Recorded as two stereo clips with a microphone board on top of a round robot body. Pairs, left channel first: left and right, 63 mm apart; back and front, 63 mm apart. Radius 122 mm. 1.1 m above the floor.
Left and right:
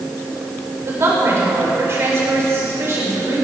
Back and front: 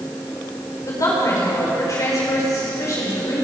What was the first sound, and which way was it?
A woman speaking, 140° right.